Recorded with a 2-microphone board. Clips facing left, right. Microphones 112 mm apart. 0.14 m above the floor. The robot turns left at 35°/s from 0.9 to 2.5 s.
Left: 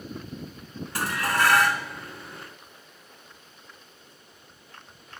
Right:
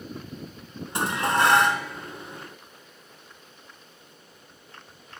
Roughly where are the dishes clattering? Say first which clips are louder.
Right 2 dB; right.